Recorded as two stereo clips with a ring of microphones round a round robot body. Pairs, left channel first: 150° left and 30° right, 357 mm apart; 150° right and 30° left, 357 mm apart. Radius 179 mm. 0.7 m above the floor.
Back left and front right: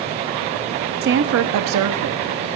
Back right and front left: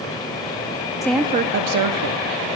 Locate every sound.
1.0 s a woman speaking: 75° right, 0.5 m; by 2.5 s 15° left, 1.1 m